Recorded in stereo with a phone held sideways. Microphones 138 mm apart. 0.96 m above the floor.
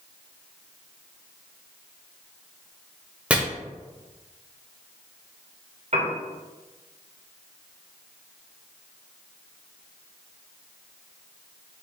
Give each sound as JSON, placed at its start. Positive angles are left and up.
{"t": 3.3, "sound": "chopping", "side_deg": -10, "distance_m": 0.8}
{"t": 5.9, "sound": "a piano", "side_deg": -55, "distance_m": 1.1}